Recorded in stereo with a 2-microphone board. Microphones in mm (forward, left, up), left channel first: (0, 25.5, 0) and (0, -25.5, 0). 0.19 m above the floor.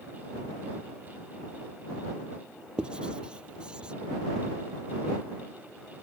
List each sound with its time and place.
2.8 s writing: 20° right (ahead or behind)